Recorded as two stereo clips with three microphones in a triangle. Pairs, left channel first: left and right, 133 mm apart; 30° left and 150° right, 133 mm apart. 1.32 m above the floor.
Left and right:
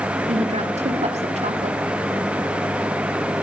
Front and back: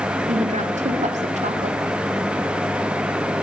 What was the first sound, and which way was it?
A woman speaking, 125° right.